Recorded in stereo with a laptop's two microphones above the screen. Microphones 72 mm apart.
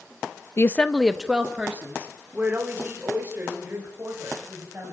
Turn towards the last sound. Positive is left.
turn(degrees=-35)  # may be behind; listen again after turning